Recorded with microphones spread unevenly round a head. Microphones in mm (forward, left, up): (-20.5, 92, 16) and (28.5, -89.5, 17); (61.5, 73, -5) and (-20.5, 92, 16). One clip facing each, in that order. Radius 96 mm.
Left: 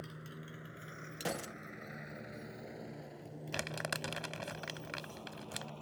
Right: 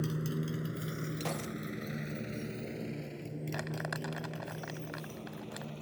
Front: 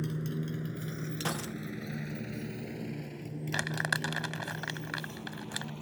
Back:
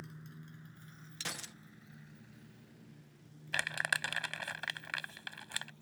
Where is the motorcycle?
50° right; by 5.8 s 10° right.